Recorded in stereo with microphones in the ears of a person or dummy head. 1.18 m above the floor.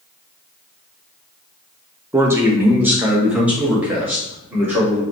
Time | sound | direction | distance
2.1 | a man speaking | 15° right (ahead or behind) | 0.6 m